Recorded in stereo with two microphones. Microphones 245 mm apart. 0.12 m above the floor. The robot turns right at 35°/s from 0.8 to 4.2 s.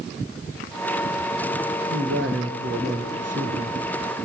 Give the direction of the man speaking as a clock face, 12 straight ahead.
5 o'clock.